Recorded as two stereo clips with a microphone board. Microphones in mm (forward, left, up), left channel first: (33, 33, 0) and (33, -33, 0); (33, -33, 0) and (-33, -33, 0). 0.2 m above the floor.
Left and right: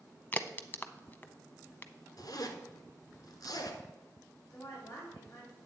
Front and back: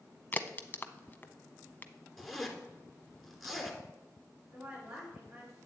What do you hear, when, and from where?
0.3 s a crack: 40° left, 0.6 m
2.2 s a zipper: 90° left, 1.3 m
4.5 s a woman speaking: 140° left, 3.5 m